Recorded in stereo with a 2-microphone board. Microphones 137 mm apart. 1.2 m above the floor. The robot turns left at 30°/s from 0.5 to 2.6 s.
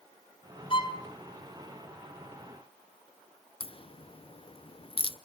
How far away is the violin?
About 1.8 m.